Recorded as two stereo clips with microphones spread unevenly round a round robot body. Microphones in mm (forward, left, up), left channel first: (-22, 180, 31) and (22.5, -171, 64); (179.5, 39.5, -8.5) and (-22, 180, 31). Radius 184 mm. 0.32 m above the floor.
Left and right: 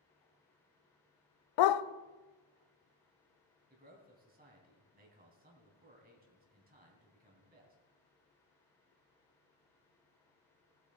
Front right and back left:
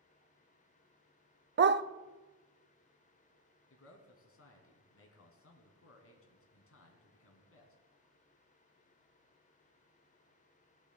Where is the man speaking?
15° right, 2.5 m.